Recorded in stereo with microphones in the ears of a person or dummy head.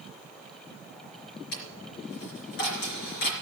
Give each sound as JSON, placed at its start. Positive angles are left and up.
{"t": 1.5, "sound": "a dropped coin", "side_deg": 60, "distance_m": 4.0}